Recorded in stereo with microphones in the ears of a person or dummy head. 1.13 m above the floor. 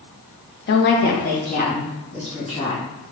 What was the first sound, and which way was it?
A woman speaking, 45° left (ahead or behind).